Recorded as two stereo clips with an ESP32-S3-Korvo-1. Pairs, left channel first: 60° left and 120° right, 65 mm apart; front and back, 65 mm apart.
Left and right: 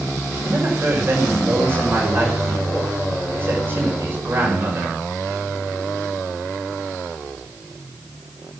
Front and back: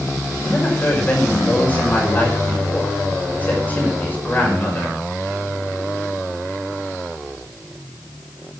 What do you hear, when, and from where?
0.4 s a woman speaking: 65° right, 5.5 m